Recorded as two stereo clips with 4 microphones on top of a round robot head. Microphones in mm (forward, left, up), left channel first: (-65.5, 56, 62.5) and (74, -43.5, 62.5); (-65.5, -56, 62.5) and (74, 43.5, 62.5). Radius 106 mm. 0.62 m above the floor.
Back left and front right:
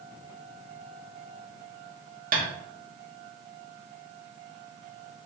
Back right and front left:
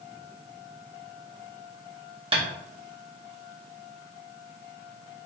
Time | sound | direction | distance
2.3 | tapping | 15° right | 1.8 m